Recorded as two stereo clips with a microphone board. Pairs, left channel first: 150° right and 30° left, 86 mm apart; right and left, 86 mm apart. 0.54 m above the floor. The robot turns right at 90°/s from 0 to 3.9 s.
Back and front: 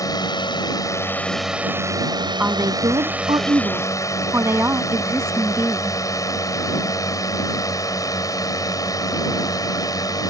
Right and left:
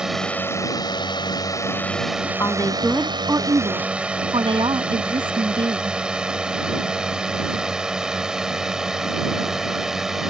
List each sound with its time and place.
0.0 s a drone: 170° left; by 10.3 s 175° left
2.4 s a woman speaking: 45° right; by 6.0 s 90° left